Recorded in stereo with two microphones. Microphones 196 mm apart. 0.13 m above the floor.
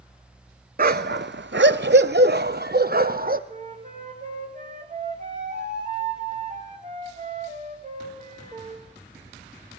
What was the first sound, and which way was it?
A dog barking, 50° right (ahead or behind).